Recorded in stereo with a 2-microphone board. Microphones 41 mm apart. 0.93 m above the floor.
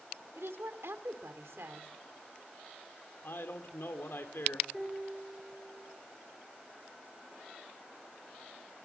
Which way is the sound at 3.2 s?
65° left (ahead or behind).